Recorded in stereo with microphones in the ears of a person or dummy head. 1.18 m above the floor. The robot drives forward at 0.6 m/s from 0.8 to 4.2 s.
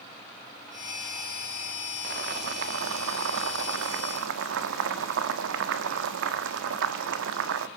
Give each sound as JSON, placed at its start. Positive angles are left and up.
{"t": 2.0, "sound": "boiling", "side_deg": -60, "distance_m": 1.7}